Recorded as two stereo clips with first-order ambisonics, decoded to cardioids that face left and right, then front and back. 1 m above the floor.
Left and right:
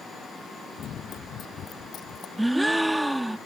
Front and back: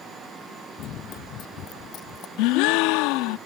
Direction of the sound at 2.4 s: 5° right.